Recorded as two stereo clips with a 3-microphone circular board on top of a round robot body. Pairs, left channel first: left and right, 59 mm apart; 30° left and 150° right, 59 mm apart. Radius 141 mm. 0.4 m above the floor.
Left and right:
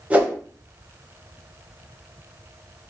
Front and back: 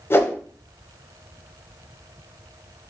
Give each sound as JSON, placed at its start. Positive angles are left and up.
{"t": 0.1, "sound": "a whoosh", "azimuth_deg": -20, "distance_m": 1.0}